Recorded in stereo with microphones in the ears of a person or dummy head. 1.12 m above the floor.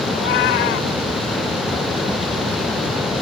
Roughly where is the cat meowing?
Left.